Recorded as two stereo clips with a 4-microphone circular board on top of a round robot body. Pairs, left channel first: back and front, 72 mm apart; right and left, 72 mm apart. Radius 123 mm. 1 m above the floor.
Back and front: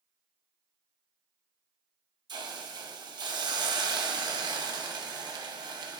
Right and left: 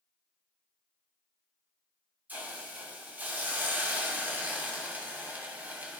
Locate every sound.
2.3 s a hiss: 20° left, 2.5 m